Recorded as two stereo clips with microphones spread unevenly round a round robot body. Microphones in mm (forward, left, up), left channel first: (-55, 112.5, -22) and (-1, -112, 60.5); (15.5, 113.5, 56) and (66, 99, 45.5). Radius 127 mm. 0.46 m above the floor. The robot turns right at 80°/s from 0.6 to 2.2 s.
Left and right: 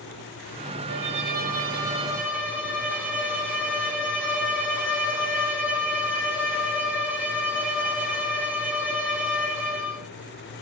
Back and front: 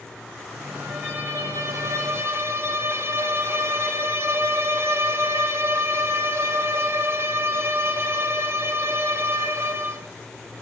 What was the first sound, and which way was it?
A violin, 90° right.